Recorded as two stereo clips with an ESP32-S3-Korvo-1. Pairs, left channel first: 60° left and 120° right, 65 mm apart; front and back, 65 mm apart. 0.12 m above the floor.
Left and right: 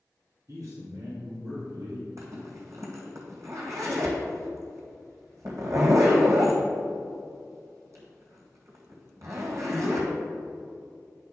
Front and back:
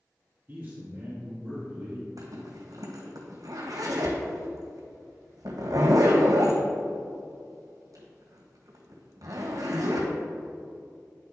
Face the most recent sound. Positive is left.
turn(degrees=-160)